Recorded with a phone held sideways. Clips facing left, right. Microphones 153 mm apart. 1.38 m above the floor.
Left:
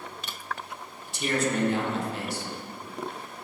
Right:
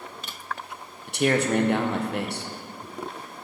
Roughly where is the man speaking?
Right.